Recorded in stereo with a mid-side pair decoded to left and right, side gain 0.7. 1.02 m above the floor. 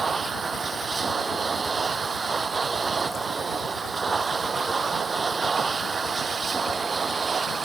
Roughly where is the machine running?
Ahead right.